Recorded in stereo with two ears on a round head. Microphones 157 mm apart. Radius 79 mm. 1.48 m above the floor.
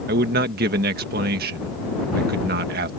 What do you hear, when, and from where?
0.1 s a man speaking: 60° right (ahead or behind)